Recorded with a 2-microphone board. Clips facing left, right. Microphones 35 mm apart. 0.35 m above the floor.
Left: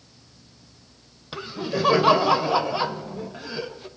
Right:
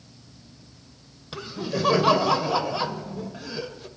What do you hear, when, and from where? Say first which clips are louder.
1.3 s laughter: left 2 dB; 10° left (ahead or behind), 1.2 m